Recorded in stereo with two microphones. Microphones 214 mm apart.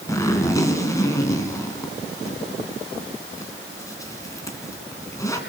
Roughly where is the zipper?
Centre.